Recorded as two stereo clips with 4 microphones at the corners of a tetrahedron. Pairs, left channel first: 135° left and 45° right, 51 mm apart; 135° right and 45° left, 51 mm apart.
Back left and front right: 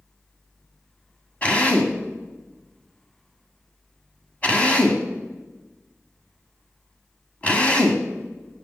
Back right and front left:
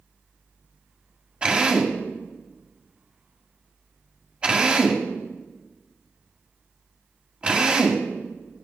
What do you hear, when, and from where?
1.4 s a drill: 95° left, 1.7 m